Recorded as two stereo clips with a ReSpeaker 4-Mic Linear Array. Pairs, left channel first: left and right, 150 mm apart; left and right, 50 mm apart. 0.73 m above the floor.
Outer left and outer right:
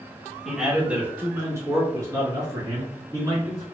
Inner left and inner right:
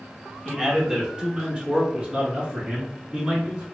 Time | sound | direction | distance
0.5 | a man speaking | 5° right (ahead or behind) | 0.9 m